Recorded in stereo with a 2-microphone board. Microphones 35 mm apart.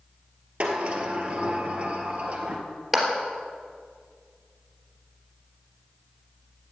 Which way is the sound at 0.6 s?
40° right (ahead or behind).